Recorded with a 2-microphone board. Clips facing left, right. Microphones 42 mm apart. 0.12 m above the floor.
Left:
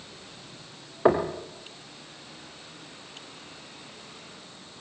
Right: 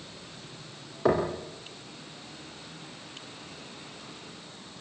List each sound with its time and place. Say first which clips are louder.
1.1 s knocking: left 3 dB; 25° left (ahead or behind), 3 m